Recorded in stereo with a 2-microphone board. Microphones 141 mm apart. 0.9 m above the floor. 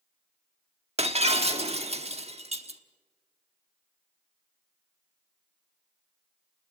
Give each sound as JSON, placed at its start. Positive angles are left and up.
{"t": 1.0, "sound": "breaking glass", "side_deg": -45, "distance_m": 1.1}